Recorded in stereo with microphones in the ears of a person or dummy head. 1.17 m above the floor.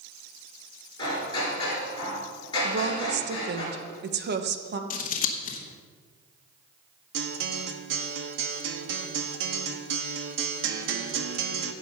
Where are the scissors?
40° left (ahead or behind), 1.4 m.